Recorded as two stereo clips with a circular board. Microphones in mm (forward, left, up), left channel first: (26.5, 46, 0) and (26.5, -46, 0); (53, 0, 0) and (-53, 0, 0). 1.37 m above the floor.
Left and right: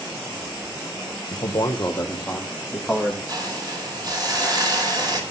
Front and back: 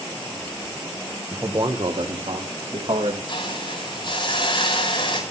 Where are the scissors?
No scissors in this recording.